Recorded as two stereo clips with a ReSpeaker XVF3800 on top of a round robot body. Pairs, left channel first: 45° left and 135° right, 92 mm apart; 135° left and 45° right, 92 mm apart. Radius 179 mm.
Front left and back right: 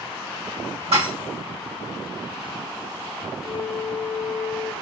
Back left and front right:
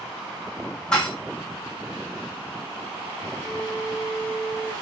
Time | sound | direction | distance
0.9 | dishes clattering | 145° right | 2.5 m
3.4 | a flute | 10° right | 1.2 m